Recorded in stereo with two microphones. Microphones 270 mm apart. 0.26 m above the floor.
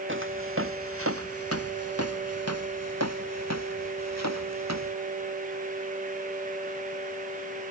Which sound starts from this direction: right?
Footsteps, at 0.1 s.